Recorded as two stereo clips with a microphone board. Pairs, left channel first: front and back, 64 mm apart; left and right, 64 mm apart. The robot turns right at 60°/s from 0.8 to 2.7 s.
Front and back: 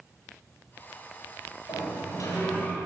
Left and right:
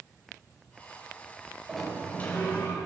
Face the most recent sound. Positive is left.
turn(degrees=55)